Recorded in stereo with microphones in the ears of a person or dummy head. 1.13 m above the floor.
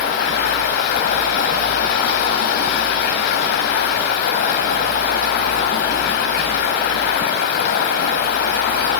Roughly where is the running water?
Left.